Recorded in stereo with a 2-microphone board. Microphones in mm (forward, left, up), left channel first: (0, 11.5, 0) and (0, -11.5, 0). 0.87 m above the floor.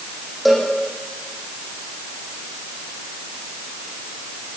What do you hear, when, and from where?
0.5 s a cowbell: 5° right (ahead or behind), 5.5 m